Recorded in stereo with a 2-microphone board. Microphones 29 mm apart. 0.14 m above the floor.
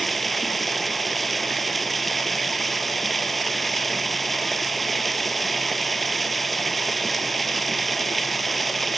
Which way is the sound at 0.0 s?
Centre (ahead or behind).